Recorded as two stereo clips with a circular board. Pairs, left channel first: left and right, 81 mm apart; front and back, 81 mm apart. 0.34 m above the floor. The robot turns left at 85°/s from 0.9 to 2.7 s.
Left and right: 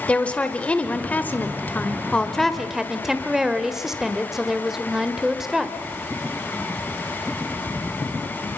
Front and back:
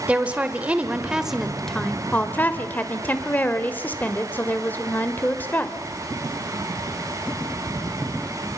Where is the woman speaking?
140° left, 1.3 m; by 5.8 s 15° right, 1.3 m.